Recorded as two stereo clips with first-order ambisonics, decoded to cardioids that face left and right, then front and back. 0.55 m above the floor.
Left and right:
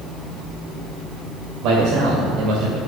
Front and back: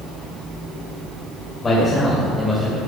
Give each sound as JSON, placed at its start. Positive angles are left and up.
{"t": 1.6, "sound": "a man speaking", "azimuth_deg": -70, "distance_m": 2.5}